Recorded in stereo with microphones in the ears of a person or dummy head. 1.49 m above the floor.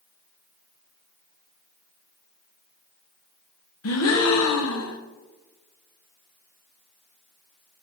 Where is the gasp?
75° left (ahead or behind), 0.6 m.